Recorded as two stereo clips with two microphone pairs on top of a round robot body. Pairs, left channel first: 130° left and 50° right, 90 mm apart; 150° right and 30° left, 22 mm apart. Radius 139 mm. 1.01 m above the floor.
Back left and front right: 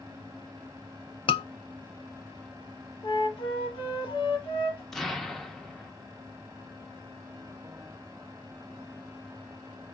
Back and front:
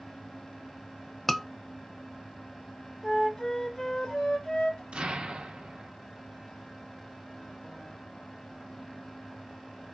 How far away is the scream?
About 0.9 m.